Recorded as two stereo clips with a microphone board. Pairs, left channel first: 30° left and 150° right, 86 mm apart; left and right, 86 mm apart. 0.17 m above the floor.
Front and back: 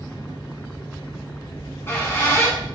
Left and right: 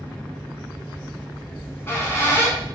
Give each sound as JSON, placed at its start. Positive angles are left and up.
{"t": 1.6, "sound": "a squeak", "azimuth_deg": 60, "distance_m": 0.8}